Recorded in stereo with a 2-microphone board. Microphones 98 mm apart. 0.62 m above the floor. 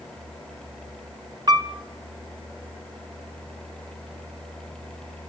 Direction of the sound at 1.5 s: 45° right (ahead or behind).